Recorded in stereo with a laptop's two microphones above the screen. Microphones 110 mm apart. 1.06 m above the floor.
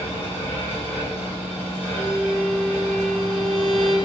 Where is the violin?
Centre (ahead or behind), 0.6 m.